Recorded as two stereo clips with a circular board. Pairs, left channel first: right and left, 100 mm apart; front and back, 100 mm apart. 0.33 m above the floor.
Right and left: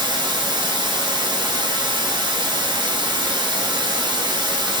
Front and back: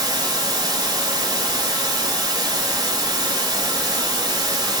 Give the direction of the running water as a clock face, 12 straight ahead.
8 o'clock.